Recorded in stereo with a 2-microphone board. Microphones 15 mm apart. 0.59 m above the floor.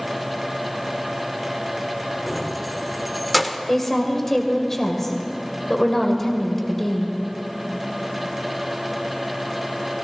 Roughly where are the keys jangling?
Centre.